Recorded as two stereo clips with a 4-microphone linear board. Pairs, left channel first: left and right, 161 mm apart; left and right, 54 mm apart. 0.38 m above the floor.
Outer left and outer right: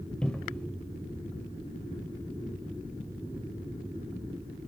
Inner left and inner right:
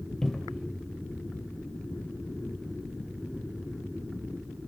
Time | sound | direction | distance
0.2 | a cupboard door | 5° left (ahead or behind) | 0.5 m